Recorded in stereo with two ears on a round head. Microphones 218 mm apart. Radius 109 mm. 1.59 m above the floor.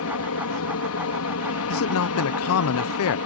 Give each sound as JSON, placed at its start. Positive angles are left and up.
{"t": 0.0, "sound": "an aircraft", "side_deg": 65}
{"t": 1.7, "sound": "a man speaking", "side_deg": 60}